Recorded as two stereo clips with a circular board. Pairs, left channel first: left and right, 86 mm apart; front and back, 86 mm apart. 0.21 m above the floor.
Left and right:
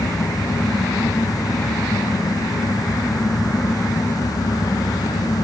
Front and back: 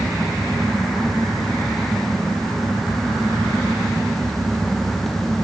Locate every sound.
Only background noise.